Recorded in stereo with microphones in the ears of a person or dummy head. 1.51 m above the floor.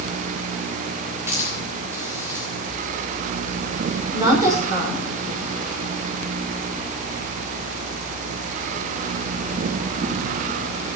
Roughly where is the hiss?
Centre.